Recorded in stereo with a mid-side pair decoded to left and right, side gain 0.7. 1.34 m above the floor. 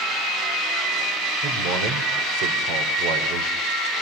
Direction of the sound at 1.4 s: 70° right.